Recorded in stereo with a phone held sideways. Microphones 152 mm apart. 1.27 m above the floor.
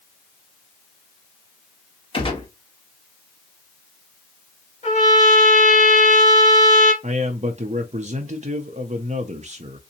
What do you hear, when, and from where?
2.1 s a gunshot: 35° left (ahead or behind), 1.0 m
4.8 s a trumpet: 50° left (ahead or behind), 1.6 m
7.0 s a man speaking: 50° right (ahead or behind), 0.6 m